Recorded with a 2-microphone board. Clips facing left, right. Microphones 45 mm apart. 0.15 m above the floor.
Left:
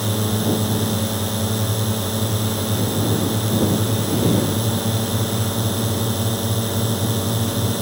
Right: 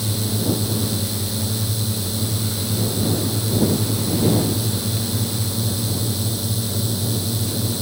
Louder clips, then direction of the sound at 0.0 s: Left 3 dB; 50° left (ahead or behind).